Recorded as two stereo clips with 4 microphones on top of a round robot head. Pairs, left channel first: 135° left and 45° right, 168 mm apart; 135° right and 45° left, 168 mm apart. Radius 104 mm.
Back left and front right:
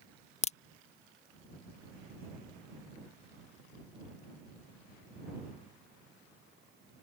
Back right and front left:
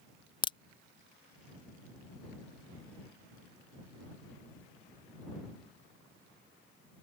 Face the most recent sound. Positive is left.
turn(degrees=170)